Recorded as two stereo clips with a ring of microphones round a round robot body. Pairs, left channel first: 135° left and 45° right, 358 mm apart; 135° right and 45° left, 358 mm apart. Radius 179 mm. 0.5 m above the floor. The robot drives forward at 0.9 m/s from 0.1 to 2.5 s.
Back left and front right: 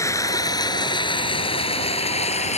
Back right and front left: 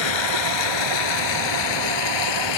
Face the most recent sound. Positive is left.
turn(degrees=-150)